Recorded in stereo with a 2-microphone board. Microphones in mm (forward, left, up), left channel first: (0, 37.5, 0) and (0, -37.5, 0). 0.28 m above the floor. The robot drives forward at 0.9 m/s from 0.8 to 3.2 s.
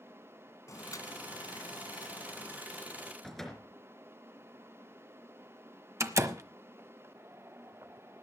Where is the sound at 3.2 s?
5° left (ahead or behind), 3.5 m.